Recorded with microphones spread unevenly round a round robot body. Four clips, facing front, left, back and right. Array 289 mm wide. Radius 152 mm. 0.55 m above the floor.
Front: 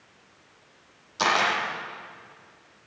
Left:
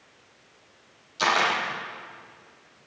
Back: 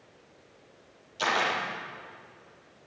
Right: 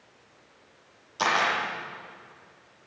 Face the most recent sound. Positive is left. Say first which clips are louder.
# left 1 dB, front 4 dB
turn(degrees=-25)